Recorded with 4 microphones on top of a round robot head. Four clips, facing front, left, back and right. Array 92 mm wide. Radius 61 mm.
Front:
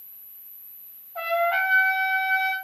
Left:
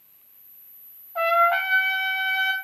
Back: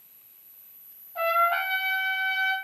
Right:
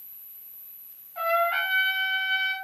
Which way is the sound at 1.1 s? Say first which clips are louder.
Left 5 dB, even; 80° left.